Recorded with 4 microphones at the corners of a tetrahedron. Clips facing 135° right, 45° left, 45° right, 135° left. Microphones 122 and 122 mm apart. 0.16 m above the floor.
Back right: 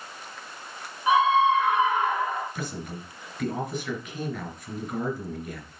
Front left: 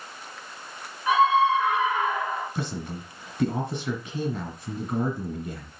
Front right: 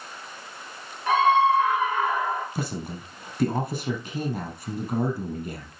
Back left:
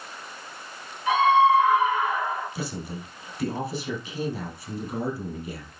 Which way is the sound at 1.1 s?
65° right.